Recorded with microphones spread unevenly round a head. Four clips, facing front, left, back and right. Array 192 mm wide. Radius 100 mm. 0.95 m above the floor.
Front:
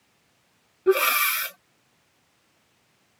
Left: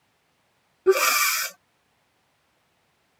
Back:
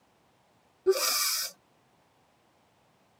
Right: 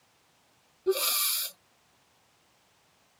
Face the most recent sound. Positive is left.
turn(degrees=55)